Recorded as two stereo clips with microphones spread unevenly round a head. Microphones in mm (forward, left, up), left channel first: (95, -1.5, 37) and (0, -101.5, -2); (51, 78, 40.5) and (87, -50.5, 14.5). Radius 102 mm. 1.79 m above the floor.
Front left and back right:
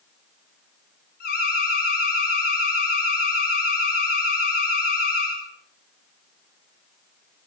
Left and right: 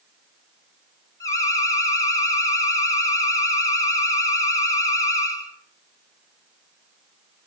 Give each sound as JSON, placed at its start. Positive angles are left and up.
{"t": 1.2, "sound": "an alarm", "azimuth_deg": 40, "distance_m": 8.0}